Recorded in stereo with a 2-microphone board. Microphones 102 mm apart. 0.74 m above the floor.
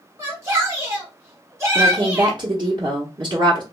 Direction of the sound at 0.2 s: 25° right (ahead or behind).